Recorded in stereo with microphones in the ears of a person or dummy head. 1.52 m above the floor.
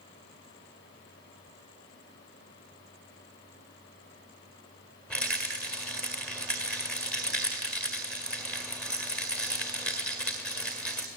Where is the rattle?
10° left (ahead or behind), 1.8 m.